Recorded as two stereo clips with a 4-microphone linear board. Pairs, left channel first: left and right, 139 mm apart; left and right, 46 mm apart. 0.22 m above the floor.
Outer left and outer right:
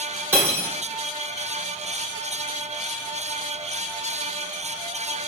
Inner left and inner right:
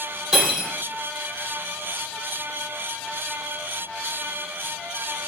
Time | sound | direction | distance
0.3 | cutlery clinking | 15° right (ahead or behind) | 1.4 m